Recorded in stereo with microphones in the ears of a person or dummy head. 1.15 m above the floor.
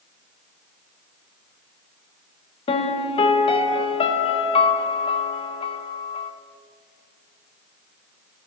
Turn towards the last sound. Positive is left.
turn(degrees=30)  # may be behind; listen again after turning